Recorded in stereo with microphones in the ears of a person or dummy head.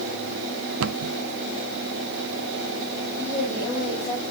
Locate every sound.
0.8 s a cupboard door: 75° right (ahead or behind), 0.5 m
3.2 s a woman speaking: 15° left (ahead or behind), 7 m